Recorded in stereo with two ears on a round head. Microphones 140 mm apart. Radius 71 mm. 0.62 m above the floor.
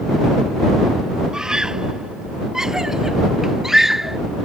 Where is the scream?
5° right (ahead or behind); by 4.2 s centre (ahead or behind).